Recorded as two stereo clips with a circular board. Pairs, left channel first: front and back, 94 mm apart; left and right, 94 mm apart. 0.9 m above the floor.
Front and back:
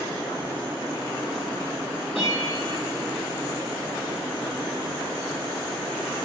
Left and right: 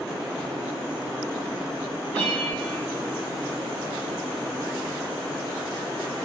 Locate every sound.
2.1 s a bell: 20° left, 7.5 m